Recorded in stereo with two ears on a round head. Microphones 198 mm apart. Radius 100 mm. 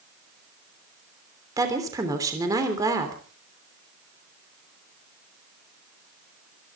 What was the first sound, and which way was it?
A woman speaking, 15° right (ahead or behind).